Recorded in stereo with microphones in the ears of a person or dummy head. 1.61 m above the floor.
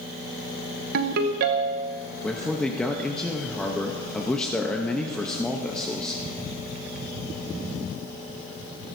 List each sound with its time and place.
0.9 s a ringtone: 55° right (ahead or behind), 0.9 m
2.2 s a man speaking: 5° left (ahead or behind), 0.8 m